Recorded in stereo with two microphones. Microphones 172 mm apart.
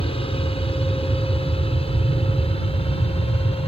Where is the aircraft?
35° left (ahead or behind).